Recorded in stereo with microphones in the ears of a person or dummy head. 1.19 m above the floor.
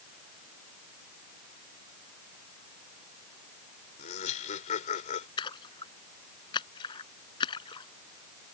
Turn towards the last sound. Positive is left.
turn(degrees=30)  # may be behind; listen again after turning